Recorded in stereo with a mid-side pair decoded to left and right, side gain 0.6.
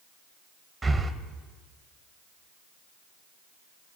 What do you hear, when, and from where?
0.8 s breathing: 10° right, 0.6 m